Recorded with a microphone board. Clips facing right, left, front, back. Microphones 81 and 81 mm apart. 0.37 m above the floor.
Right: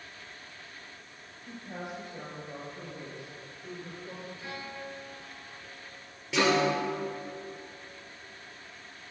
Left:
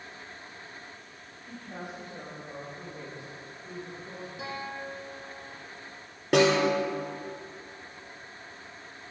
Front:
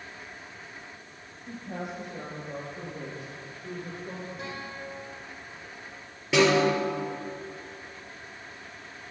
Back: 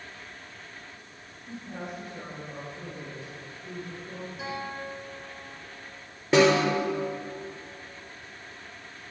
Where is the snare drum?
125° left, 5.5 m.